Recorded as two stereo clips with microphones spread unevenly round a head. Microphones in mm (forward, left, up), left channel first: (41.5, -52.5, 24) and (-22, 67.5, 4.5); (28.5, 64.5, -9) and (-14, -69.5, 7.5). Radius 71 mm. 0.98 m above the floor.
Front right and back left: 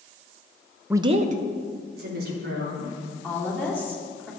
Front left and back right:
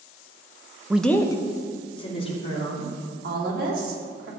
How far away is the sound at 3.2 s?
About 2.5 m.